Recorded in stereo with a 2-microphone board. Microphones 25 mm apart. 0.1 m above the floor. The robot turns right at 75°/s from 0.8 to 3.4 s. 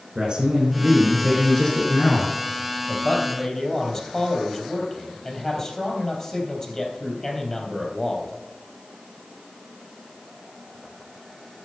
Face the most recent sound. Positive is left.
turn(degrees=150)